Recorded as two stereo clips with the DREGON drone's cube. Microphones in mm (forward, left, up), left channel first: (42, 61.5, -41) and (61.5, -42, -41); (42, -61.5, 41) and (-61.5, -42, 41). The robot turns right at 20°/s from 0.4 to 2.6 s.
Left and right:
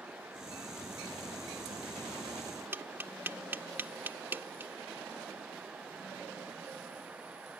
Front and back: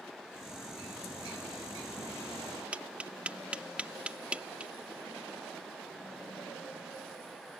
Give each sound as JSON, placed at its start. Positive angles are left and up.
{"t": 2.7, "sound": "tapping", "azimuth_deg": -125}